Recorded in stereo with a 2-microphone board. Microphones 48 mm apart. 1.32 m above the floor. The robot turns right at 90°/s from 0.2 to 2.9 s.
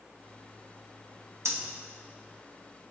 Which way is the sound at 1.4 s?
80° right.